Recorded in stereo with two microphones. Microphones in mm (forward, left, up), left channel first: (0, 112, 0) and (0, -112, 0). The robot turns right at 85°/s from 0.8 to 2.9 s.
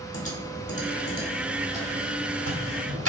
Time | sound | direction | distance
0.1 | typing on a keyboard | 65° left (ahead or behind) | 1.2 m